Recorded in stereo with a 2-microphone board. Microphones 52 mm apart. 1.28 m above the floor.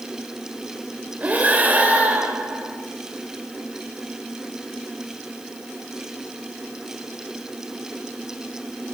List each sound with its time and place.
1.2 s breathing: 30° right (ahead or behind), 2 m